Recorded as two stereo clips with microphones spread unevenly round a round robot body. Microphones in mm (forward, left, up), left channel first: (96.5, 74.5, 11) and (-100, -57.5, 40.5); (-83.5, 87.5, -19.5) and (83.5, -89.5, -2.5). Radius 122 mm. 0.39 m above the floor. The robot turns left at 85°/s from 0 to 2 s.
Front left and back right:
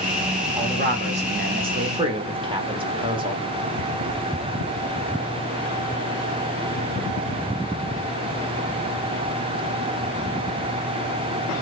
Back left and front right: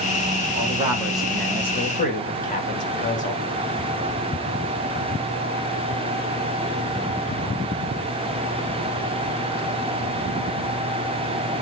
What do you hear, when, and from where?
0.6 s a man speaking: 90° right, 1.3 m; by 3.5 s 150° left, 1.3 m